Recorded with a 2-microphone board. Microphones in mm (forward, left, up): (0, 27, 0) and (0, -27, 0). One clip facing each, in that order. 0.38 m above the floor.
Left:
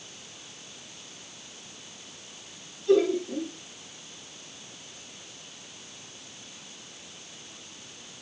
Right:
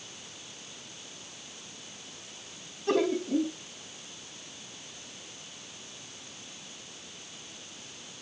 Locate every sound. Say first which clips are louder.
2.9 s laughter: left 4 dB; 70° right (ahead or behind), 2.5 m